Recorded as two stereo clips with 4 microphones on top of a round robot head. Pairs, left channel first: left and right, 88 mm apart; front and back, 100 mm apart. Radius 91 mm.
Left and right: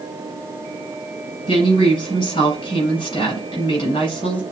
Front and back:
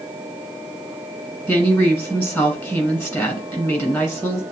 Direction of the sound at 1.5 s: 70° left.